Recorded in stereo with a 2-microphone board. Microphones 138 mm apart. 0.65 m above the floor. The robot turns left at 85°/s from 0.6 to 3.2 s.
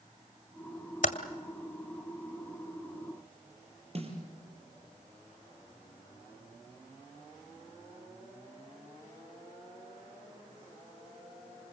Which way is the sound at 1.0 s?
70° left (ahead or behind).